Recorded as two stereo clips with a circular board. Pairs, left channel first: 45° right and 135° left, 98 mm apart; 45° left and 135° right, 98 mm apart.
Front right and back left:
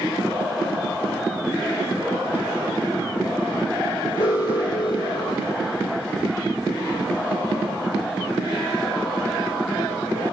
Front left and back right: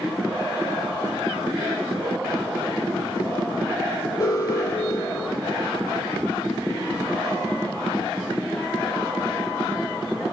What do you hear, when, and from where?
4.2 s an alarm: 5° right, 3.5 m